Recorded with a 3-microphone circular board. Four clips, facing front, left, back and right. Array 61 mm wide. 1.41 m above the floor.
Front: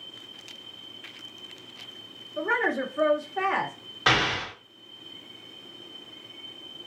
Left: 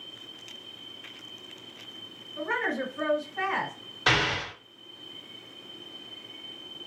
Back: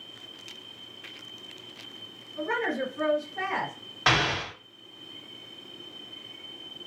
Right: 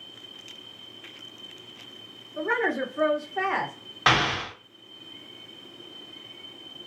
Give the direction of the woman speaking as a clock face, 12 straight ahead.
2 o'clock.